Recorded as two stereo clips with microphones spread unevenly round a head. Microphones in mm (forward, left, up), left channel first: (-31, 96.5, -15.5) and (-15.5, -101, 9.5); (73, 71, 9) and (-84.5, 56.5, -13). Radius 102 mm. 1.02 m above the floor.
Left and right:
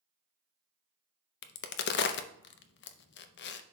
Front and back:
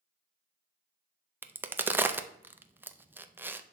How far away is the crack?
About 0.6 m.